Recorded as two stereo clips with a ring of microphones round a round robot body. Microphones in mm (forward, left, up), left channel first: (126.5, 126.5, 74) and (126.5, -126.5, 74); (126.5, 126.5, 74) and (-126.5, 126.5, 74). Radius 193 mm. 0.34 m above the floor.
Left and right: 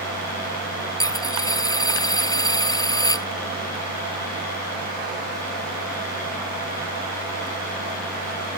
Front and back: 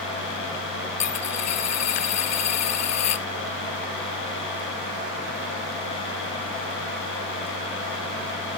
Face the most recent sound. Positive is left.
turn(degrees=15)